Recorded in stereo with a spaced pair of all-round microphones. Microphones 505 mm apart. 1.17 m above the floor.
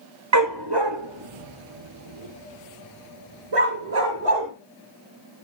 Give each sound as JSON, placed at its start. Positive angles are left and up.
{"t": 0.3, "sound": "a dog barking", "side_deg": -35, "distance_m": 0.6}